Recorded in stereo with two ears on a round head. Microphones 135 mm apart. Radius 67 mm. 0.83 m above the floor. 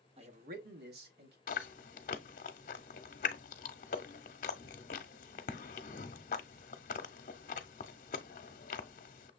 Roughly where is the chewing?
Left.